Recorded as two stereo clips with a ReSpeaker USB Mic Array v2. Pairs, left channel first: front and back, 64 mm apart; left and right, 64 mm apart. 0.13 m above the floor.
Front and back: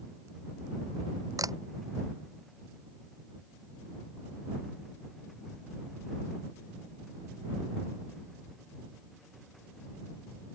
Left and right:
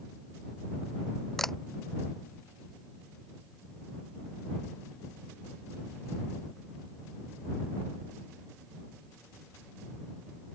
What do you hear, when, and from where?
1.4 s a camera shutter: straight behind